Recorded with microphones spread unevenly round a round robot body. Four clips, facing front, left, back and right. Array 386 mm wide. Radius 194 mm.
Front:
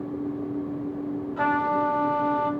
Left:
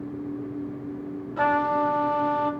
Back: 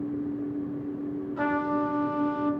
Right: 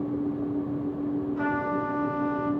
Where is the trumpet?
75° left, 2.5 m.